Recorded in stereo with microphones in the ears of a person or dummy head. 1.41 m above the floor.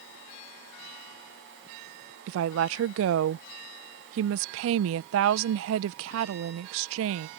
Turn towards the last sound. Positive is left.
turn(degrees=-75)  # may be behind; listen again after turning